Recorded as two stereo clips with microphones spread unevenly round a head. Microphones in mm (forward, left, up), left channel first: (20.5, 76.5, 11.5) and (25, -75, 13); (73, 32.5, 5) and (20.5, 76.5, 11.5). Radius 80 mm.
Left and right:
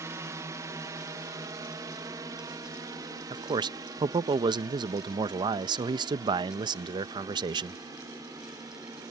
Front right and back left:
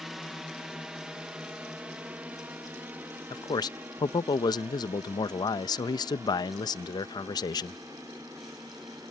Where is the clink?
No clink in this recording.